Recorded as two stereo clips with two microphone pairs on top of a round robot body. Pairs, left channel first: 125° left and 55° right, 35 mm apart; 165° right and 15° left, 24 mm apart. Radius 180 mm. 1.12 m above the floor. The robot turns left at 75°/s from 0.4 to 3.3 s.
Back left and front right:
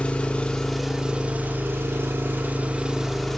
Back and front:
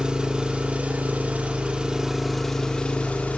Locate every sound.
0.0 s an engine running: 70° left, 4 m; by 3.4 s 150° right, 4 m